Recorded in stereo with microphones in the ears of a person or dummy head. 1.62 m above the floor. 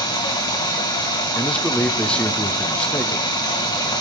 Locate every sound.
0.0 s running water: 25° left (ahead or behind), 1.5 m
1.4 s a man speaking: 5° left (ahead or behind), 0.8 m